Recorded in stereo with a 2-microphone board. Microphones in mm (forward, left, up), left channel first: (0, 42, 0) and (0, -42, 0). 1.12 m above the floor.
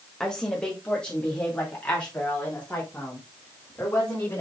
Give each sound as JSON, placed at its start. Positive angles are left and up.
{"t": 0.2, "sound": "a woman speaking", "side_deg": 5, "distance_m": 1.7}